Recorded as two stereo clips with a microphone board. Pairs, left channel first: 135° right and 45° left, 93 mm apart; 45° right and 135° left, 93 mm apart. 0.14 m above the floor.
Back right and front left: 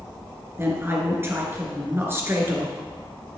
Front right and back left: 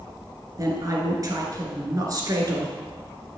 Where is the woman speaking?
100° left, 1.9 m.